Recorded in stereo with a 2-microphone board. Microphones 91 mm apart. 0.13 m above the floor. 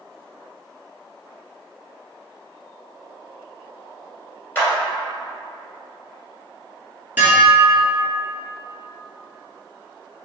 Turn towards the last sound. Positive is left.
turn(degrees=-20)  # may be behind; listen again after turning